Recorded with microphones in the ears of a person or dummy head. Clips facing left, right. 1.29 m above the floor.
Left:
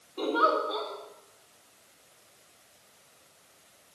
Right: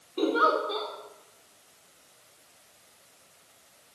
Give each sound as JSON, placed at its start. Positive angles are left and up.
{"t": 0.2, "sound": "a giggle", "side_deg": -30, "distance_m": 4.5}